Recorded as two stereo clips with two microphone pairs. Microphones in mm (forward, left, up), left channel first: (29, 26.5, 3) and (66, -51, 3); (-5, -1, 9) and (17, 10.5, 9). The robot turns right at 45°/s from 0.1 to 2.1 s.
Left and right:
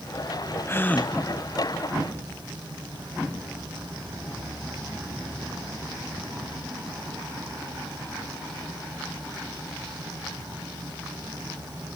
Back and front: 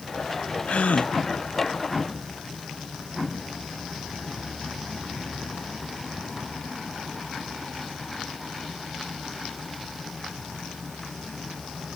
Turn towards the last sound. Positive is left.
turn(degrees=-120)